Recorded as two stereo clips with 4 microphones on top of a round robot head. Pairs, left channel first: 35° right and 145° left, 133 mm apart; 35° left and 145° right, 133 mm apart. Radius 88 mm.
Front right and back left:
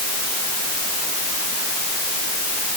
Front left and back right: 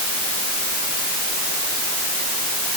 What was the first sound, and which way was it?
Only background noise.